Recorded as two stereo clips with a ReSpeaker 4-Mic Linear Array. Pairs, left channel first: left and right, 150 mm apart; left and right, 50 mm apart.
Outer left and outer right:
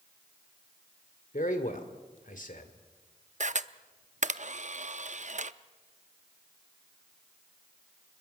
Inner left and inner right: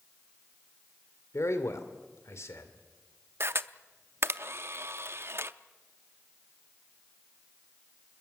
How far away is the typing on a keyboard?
I don't hear typing on a keyboard.